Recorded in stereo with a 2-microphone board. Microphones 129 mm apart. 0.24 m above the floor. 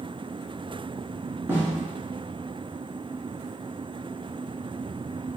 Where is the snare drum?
15° right (ahead or behind), 1.4 m.